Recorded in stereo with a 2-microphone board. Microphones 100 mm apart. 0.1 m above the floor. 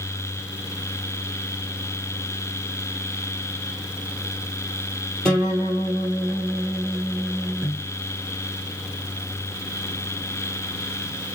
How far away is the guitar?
About 2.5 m.